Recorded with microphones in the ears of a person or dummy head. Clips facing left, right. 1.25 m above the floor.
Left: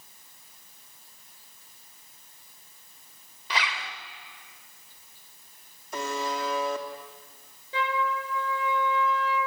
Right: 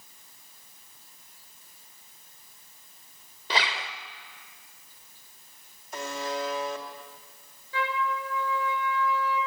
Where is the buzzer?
65° left (ahead or behind), 2.5 m.